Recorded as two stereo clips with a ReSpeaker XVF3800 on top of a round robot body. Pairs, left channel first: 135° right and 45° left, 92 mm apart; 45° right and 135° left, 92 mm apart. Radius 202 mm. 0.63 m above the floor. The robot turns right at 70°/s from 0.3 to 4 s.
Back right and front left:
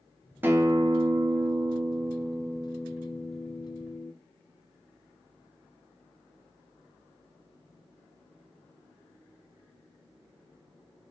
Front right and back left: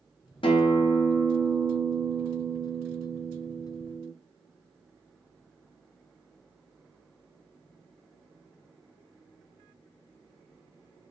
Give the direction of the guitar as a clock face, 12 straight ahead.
1 o'clock.